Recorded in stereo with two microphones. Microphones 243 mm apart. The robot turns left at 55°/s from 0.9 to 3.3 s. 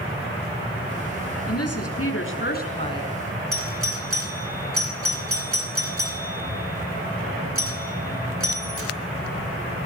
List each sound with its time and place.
1.5 s a woman speaking: 100° left, 5.5 m; by 3.1 s 10° left, 5.5 m
3.5 s a doorbell: 65° right (ahead or behind), 4 m